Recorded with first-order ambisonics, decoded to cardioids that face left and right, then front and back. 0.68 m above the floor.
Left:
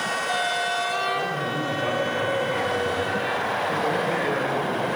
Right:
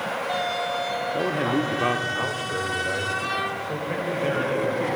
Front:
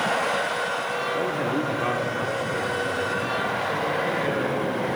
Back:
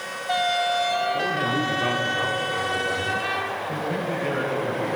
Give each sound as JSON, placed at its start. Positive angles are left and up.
{"t": 1.1, "sound": "a man speaking", "azimuth_deg": -75, "distance_m": 0.9}